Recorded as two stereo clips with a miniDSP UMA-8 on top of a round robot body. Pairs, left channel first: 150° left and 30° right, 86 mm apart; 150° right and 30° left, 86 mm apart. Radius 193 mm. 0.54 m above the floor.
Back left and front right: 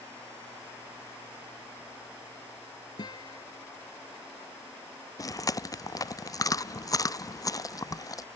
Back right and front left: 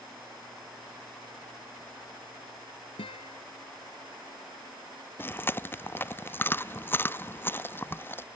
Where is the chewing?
160° left.